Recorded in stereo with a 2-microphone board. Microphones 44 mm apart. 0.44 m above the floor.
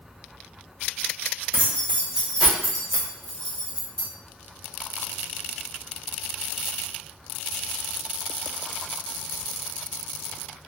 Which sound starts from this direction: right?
Keys jangling, at 1.5 s.